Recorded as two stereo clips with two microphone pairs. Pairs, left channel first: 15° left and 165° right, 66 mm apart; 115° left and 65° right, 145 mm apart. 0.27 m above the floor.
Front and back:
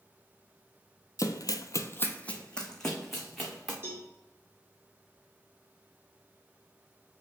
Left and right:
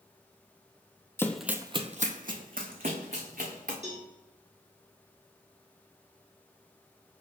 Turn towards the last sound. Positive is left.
turn(degrees=-105)